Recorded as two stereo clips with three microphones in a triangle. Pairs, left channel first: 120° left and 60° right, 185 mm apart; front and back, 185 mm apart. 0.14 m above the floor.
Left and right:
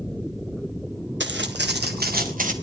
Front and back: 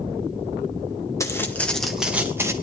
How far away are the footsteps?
About 2.5 m.